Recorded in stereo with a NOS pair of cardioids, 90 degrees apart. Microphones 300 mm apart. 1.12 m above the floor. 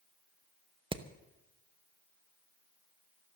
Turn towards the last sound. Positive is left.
turn(degrees=-15)